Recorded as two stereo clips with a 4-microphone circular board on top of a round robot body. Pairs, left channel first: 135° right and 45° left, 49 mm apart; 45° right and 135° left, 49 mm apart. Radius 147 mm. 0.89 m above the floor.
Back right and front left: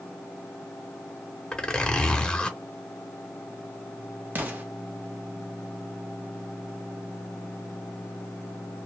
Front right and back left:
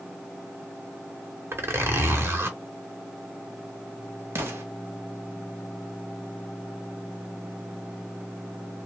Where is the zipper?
155° left, 1.2 m.